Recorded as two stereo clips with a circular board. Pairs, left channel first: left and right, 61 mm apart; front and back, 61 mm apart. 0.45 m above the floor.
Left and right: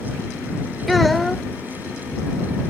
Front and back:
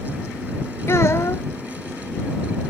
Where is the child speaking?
Straight ahead.